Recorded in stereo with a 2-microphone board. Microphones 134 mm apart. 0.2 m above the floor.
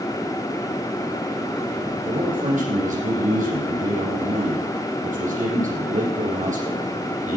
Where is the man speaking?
80° right, 6 m.